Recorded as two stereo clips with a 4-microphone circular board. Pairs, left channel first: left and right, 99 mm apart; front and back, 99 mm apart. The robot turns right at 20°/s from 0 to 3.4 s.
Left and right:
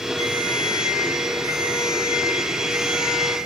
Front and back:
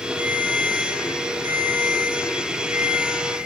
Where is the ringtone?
155° left, 5 m; by 3.4 s 145° right, 5 m.